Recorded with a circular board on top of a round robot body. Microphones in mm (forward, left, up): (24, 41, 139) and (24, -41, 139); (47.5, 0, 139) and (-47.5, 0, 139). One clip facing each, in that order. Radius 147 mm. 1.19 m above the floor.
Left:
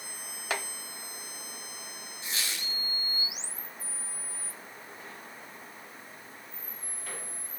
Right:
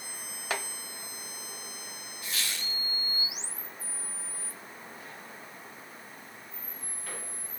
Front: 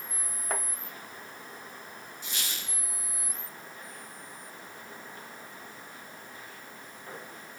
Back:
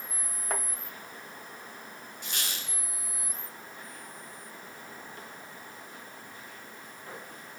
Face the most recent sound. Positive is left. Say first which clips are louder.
# even, back 2 dB
turn(degrees=155)